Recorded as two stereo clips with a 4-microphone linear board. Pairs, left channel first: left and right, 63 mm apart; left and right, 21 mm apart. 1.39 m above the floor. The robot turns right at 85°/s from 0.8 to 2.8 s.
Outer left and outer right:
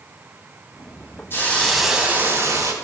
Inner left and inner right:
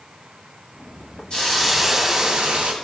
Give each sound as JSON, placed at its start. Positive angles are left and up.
{"t": 1.3, "sound": "a hiss", "azimuth_deg": 140, "distance_m": 2.5}